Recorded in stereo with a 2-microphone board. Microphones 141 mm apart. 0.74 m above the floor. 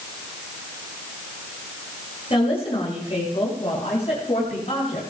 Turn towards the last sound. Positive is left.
turn(degrees=50)  # may be behind; listen again after turning